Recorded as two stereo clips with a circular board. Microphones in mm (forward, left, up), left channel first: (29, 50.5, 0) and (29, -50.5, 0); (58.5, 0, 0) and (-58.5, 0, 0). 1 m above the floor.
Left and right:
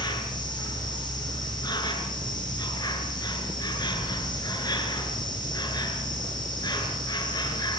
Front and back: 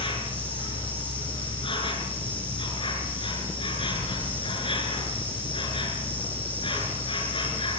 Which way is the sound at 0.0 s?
40° left.